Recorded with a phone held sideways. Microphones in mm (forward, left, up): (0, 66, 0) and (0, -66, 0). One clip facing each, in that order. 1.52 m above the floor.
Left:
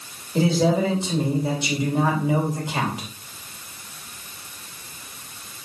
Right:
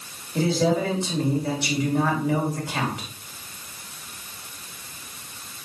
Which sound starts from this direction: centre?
A man speaking, at 0.3 s.